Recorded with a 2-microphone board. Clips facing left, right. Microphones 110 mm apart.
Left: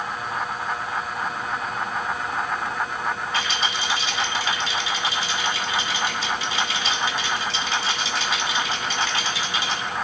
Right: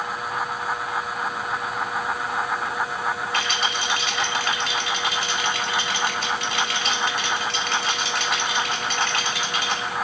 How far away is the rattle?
About 3 m.